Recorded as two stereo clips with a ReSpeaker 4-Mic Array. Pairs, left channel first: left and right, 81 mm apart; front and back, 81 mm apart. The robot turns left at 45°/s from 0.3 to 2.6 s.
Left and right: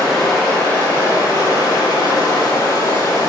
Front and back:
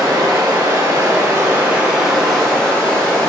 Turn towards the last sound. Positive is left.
turn(degrees=70)